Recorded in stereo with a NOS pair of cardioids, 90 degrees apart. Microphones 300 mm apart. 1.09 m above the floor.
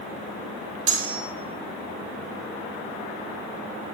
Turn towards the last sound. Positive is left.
turn(degrees=-55)